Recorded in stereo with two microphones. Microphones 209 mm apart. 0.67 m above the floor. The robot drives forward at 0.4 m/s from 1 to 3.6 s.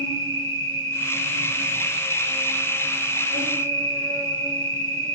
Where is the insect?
80° left, 3 m; by 5.2 s 75° left (ahead or behind), 3 m.